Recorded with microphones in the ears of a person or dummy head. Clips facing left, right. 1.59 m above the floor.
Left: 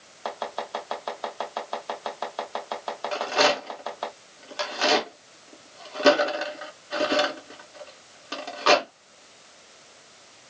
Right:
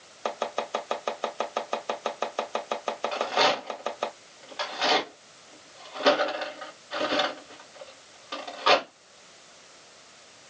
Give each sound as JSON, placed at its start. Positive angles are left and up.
{"t": 0.2, "sound": "chopping", "side_deg": -30, "distance_m": 1.1}
{"t": 3.1, "sound": "a rattle", "side_deg": 50, "distance_m": 1.9}